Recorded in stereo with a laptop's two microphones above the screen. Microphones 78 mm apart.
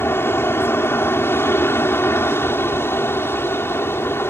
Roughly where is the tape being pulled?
I don't hear tape being pulled.